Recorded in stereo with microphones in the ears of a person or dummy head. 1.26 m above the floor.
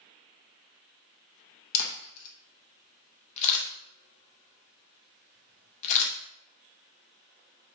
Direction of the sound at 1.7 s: 40° left (ahead or behind).